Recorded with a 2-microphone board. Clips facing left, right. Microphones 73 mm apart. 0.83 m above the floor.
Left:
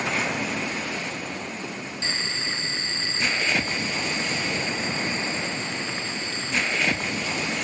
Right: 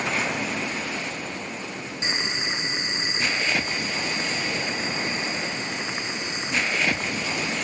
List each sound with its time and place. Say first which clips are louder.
2.0 s boiling: right 3 dB; 20° right (ahead or behind)